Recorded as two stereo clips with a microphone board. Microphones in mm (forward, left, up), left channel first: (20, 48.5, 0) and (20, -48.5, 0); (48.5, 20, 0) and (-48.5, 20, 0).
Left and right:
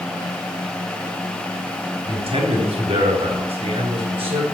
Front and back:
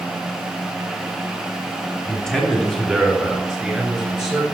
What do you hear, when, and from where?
2.1 s a man speaking: 85° right, 3.5 m; by 4.4 s 95° right, 6 m